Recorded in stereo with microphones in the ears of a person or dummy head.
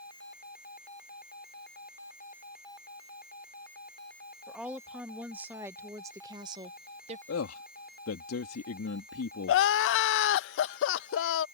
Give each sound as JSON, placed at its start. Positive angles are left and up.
{"t": 4.5, "sound": "a woman speaking", "side_deg": -5}
{"t": 7.3, "sound": "a man speaking", "side_deg": 85}
{"t": 9.5, "sound": "crying", "side_deg": 60}